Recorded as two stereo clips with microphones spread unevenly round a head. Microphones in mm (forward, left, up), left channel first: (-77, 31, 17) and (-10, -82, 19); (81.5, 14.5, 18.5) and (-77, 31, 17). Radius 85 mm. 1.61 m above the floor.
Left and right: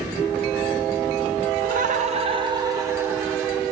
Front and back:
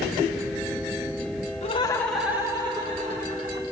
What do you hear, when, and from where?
1.6 s laughter: 55° right, 0.9 m; by 3.6 s 140° right, 2 m